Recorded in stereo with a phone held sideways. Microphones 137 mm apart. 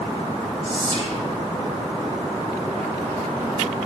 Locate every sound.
0.6 s whispering: 40° right (ahead or behind), 2.5 m